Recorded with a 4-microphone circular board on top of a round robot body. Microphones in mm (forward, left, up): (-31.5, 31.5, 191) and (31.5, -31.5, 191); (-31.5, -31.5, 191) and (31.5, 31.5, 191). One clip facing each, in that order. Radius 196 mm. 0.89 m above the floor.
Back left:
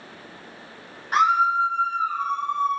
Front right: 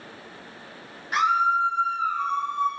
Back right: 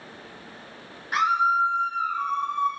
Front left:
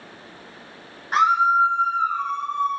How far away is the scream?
About 1.1 m.